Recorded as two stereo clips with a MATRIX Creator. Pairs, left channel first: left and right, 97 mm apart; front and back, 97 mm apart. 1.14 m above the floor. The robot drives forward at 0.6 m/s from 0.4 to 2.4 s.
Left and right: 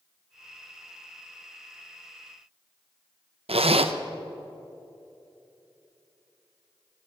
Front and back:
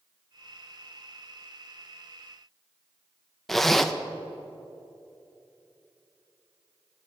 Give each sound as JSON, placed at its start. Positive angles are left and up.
{"t": 3.5, "sound": "a zipper", "azimuth_deg": -90, "distance_m": 0.6}